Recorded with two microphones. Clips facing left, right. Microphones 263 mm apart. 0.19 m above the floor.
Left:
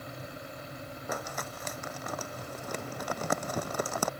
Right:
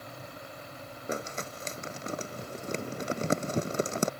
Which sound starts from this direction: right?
Crumpling, at 1.1 s.